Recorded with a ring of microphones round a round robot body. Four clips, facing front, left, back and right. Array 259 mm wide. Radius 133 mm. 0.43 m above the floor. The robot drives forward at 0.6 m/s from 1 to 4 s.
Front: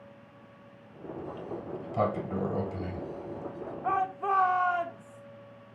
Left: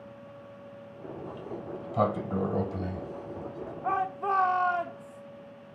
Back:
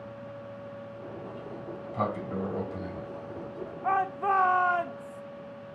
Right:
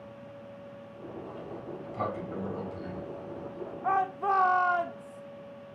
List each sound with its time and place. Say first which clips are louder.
1.2 s a sliding door: left 3 dB, front 1 dB; 45° left, 2.5 m; by 3.7 s 85° left, 1.9 m
3.8 s a shout: right 2 dB, back 2 dB; 150° right, 1.2 m; by 5.2 s 155° right, 1.2 m